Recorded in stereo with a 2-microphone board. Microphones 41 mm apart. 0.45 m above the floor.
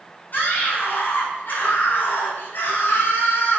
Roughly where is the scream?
Left.